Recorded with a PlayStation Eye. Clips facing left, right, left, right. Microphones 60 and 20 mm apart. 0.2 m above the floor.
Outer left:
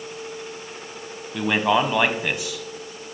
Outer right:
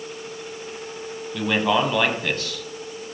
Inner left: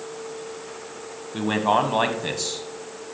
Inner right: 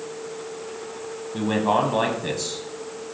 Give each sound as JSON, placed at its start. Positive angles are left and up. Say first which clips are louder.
{"t": 1.3, "sound": "a man speaking", "louder": "outer left 1 dB, inner left 1 dB", "side_deg": 15, "distance_m": 1.1}